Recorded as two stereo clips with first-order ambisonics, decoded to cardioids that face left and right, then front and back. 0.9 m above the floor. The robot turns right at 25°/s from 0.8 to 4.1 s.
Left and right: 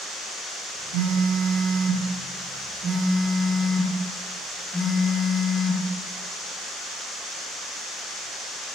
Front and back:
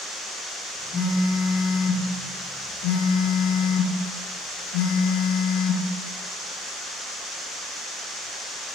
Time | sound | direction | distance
0.9 | a phone buzzing | 75° right | 0.9 m